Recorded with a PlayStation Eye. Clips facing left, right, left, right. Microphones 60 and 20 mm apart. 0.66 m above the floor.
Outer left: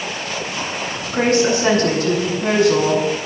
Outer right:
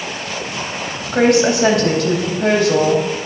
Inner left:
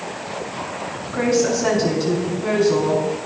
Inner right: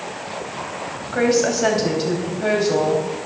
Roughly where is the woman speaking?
Right.